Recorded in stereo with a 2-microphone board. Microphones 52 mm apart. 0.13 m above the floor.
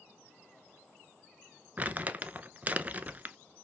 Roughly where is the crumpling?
Right.